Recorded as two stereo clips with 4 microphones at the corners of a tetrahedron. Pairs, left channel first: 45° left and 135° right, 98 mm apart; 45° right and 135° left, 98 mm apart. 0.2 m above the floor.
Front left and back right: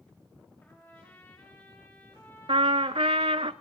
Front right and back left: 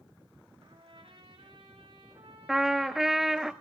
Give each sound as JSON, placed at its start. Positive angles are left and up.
{"t": 0.6, "sound": "a trumpet", "azimuth_deg": 115, "distance_m": 5.5}
{"t": 2.5, "sound": "a trumpet", "azimuth_deg": -140, "distance_m": 0.6}